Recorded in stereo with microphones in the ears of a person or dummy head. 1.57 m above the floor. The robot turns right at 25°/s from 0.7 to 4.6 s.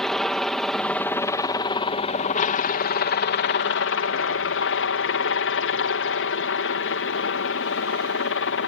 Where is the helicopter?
5° left; by 8.7 s 100° left.